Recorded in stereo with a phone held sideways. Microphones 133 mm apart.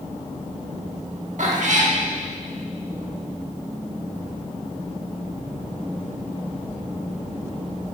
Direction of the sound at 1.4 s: 65° right (ahead or behind).